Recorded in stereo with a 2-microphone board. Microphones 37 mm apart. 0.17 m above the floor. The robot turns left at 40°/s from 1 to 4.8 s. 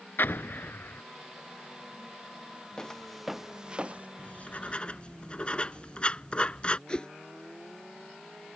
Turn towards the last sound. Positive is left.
turn(degrees=20)  # may be behind; listen again after turning